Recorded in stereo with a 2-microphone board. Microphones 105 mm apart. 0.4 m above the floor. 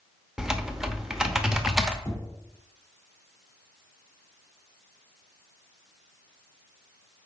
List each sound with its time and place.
0.4 s typing on a keyboard: 5° right (ahead or behind), 0.8 m
2.0 s knocking: 25° left (ahead or behind), 1.0 m